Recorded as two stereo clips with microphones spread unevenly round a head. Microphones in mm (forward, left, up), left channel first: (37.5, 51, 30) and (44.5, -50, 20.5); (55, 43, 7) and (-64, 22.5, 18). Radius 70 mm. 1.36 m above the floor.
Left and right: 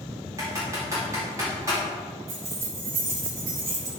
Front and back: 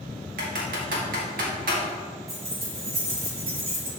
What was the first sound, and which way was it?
Typing on a keyboard, 155° right.